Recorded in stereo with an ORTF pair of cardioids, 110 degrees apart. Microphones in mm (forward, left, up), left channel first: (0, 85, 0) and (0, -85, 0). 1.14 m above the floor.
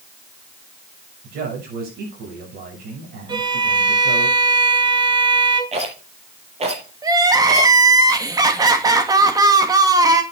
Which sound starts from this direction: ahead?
Crying, at 7.0 s.